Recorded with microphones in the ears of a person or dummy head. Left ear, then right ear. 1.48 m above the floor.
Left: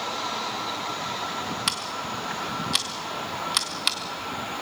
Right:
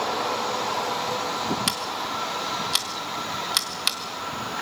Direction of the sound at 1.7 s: 5° right (ahead or behind).